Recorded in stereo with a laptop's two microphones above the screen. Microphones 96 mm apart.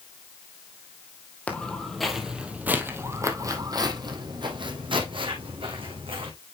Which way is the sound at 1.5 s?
15° left (ahead or behind).